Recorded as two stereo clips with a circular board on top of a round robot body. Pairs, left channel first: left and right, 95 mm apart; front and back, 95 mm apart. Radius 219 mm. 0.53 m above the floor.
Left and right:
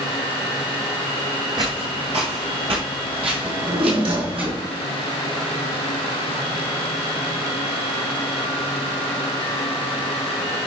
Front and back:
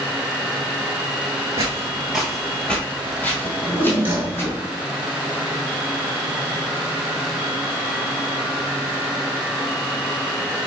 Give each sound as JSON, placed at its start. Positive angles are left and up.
{"t": 1.6, "sound": "footsteps", "azimuth_deg": -130, "distance_m": 0.6}
{"t": 3.4, "sound": "a drawer", "azimuth_deg": -110, "distance_m": 2.5}